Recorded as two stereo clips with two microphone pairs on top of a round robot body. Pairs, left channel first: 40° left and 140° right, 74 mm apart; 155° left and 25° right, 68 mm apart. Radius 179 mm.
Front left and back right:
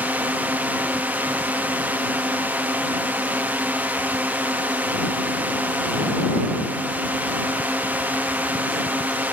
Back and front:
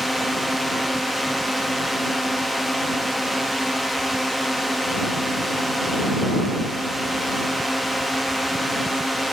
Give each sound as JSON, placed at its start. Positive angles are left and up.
{"t": 0.0, "sound": "a drone", "azimuth_deg": -120}